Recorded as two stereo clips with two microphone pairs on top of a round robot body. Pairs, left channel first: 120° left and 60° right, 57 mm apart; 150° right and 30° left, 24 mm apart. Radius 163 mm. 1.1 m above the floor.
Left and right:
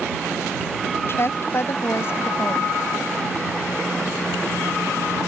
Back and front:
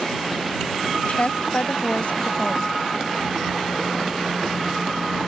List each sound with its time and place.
1.1 s a woman speaking: 170° left